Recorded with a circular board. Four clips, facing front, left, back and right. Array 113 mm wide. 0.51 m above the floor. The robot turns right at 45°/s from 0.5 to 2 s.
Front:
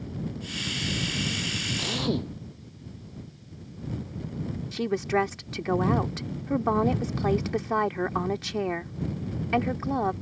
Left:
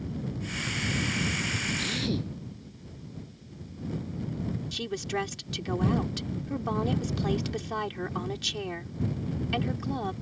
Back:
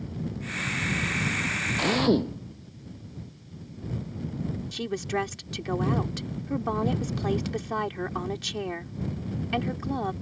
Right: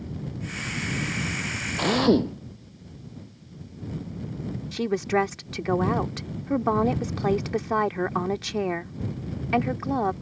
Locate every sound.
1.8 s a drill: 120° right; by 2.3 s 110° right
4.7 s a woman speaking: 60° right